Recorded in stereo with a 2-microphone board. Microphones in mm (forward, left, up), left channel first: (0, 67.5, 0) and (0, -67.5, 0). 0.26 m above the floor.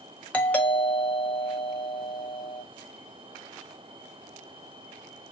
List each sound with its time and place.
0.3 s a doorbell: 10° left (ahead or behind), 1.4 m